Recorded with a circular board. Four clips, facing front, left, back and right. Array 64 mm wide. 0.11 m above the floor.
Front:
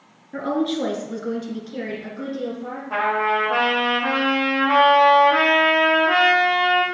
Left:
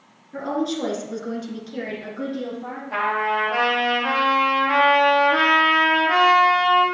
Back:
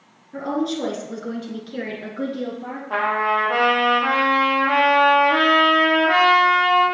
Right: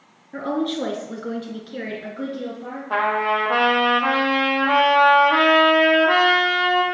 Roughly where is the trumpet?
Right.